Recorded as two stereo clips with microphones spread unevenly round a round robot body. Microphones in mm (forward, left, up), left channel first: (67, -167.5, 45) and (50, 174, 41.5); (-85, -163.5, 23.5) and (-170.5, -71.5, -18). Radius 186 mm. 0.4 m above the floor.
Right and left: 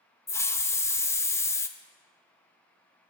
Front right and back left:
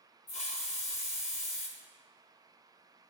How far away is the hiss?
About 0.5 m.